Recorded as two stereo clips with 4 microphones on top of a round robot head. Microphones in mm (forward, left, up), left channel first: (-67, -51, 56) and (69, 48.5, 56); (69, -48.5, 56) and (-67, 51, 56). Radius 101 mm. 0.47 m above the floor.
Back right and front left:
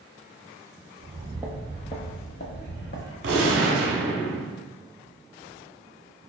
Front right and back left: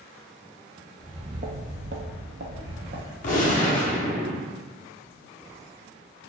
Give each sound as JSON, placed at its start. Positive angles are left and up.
{"t": 1.0, "sound": "footsteps", "azimuth_deg": 70, "distance_m": 0.7}
{"t": 3.2, "sound": "a gunshot", "azimuth_deg": 10, "distance_m": 0.8}